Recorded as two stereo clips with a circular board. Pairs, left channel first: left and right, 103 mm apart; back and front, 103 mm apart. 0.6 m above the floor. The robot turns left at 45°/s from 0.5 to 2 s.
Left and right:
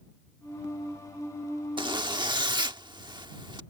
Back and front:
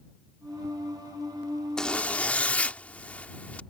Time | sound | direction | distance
1.8 | a zipper | 100° right | ?